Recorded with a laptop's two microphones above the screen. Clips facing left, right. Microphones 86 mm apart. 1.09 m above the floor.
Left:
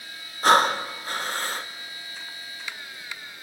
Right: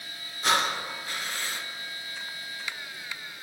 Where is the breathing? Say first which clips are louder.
Left 8 dB; 45° left (ahead or behind), 1.0 m.